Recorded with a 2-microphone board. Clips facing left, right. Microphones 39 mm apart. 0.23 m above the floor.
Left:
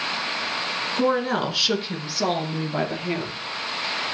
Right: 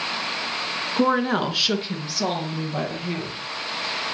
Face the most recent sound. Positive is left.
turn(degrees=25)  # may be behind; listen again after turning